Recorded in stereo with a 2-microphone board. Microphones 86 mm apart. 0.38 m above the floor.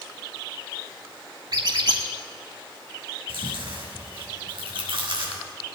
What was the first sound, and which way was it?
A squeak, 50° right (ahead or behind).